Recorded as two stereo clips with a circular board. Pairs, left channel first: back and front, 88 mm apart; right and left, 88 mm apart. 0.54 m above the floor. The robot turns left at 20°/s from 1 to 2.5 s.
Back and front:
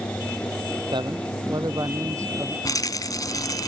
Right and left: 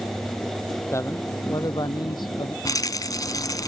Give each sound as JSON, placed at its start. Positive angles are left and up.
{"t": 0.9, "sound": "a man speaking", "azimuth_deg": -30}
{"t": 2.6, "sound": "a rattle", "azimuth_deg": -135}